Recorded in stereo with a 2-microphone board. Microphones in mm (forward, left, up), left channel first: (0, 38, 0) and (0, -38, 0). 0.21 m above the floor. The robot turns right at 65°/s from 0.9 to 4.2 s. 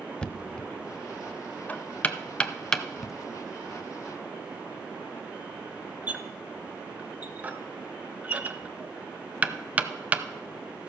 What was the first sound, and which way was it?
Knocking, 10° left (ahead or behind).